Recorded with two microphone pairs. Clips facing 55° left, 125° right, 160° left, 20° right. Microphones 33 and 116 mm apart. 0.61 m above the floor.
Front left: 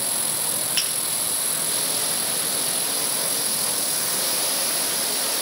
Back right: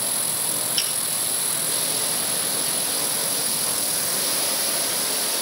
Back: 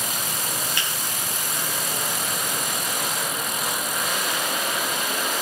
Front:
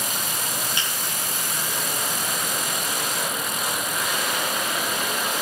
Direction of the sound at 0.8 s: 50° left.